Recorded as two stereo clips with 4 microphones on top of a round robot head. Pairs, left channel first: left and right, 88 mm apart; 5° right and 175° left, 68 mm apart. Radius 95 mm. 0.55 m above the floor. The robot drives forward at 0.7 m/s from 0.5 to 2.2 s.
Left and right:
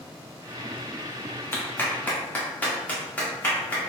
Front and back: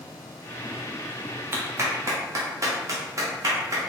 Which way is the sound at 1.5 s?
145° left.